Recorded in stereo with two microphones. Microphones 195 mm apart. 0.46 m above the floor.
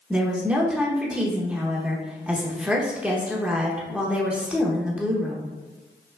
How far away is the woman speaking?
About 0.8 m.